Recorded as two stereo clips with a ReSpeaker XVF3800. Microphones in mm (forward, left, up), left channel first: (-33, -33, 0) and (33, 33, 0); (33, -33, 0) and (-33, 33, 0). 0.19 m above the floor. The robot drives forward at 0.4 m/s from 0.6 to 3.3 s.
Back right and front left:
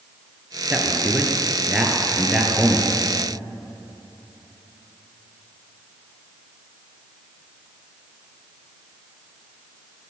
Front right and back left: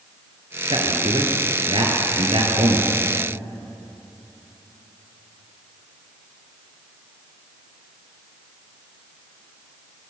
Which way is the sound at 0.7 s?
125° left.